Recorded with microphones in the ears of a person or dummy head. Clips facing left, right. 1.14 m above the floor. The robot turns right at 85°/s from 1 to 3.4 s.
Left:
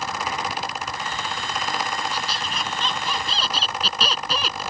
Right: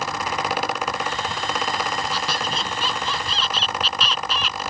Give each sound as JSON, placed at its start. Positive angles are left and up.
{"t": 2.1, "sound": "a squeak", "azimuth_deg": -70}